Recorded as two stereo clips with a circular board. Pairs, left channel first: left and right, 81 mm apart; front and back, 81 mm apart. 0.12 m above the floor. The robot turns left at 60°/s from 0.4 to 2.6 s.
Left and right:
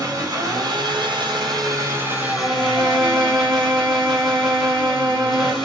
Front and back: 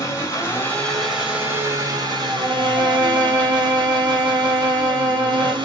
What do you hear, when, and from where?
0.0 s an engine running: 45° right, 1.4 m; by 5.6 s straight behind, 1.4 m
2.3 s a violin: 140° right, 1.7 m; by 5.5 s 155° right, 1.7 m